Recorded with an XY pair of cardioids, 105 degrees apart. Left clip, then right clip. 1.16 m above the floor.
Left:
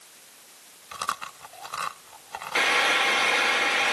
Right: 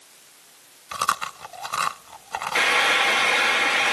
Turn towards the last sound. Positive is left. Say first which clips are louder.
# right 2 dB
turn(degrees=-25)